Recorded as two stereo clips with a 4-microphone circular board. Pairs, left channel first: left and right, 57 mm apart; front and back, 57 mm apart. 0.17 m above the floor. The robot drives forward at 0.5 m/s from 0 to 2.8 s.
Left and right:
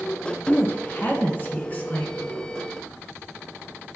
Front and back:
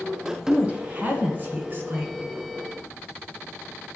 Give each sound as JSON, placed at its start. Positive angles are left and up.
{"t": 0.5, "sound": "a woman speaking", "azimuth_deg": 120, "distance_m": 1.7}